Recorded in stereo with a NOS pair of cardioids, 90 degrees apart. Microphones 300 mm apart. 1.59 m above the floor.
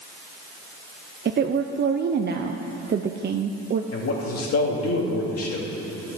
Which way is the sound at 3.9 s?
50° left.